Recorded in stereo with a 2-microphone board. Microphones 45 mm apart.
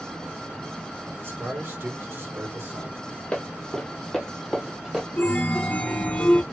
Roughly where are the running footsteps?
Centre.